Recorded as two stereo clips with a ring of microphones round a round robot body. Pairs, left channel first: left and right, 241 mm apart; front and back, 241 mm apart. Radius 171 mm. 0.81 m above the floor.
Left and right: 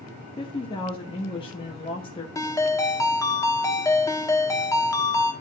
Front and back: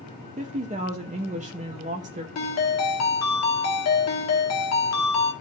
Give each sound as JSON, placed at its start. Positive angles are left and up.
{"t": 0.4, "sound": "a woman speaking", "azimuth_deg": 145, "distance_m": 0.8}
{"t": 2.4, "sound": "a ringtone", "azimuth_deg": 10, "distance_m": 1.3}